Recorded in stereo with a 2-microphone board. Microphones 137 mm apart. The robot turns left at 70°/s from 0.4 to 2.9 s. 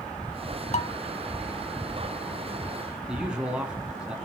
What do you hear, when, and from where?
0.7 s dishes clattering: 55° left (ahead or behind), 1.3 m; by 0.9 s 45° left (ahead or behind), 1.3 m
3.1 s a man speaking: 5° right (ahead or behind), 3 m